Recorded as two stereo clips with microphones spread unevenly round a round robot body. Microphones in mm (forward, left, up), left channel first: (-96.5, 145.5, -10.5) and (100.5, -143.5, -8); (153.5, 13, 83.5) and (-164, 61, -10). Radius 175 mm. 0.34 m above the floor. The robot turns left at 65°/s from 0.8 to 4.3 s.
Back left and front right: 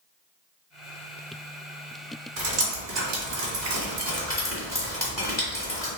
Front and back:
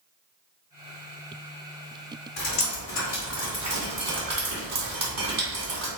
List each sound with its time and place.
2.4 s dripping: 30° right, 1.9 m; by 5.9 s 155° right, 1.9 m